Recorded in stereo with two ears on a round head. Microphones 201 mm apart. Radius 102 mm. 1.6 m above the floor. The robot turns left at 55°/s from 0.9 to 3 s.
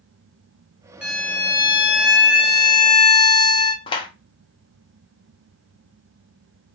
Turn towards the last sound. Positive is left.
turn(degrees=20)  # may be behind; listen again after turning